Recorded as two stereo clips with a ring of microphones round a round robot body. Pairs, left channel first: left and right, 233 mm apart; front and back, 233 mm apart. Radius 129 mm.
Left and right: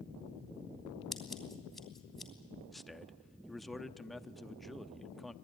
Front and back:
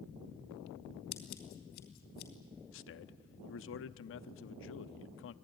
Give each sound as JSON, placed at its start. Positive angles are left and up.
{"t": 1.1, "sound": "scissors", "azimuth_deg": 0, "distance_m": 3.0}
{"t": 2.7, "sound": "a man speaking", "azimuth_deg": 0, "distance_m": 0.8}